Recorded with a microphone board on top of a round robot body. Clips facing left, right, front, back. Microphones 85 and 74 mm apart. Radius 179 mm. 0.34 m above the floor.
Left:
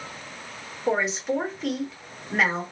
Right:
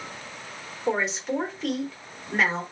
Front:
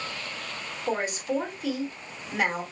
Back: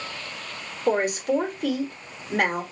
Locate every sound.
0.9 s a woman speaking: straight behind, 1.5 m